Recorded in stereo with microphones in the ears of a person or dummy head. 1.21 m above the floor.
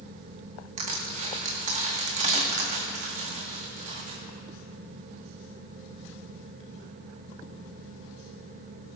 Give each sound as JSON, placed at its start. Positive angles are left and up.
{"t": 0.8, "sound": "crushing", "side_deg": -40, "distance_m": 1.8}